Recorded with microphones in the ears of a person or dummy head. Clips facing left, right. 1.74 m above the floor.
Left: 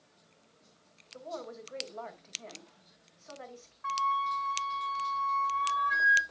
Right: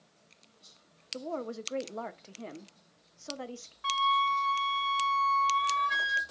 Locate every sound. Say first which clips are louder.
1.1 s a woman speaking: right 5 dB; 50° right (ahead or behind), 0.9 m
3.8 s a flute: right 3 dB; 45° right (ahead or behind), 0.9 m